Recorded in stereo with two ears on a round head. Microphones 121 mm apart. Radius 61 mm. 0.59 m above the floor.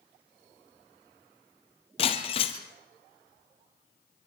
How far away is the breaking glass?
About 2.5 m.